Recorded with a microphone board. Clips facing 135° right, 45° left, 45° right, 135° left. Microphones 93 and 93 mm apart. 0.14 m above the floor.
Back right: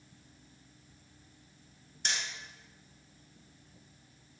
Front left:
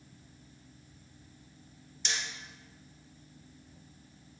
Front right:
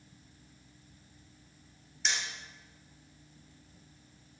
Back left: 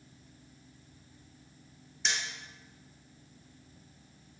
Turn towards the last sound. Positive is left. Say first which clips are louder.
# back right 1 dB, even
turn(degrees=-130)